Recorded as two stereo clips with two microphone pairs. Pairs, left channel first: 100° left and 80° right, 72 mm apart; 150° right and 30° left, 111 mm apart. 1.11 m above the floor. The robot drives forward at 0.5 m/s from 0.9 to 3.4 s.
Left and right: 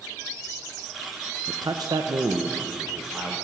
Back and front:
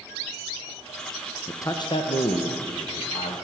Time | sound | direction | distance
1.5 | a man speaking | 80° right | 0.5 m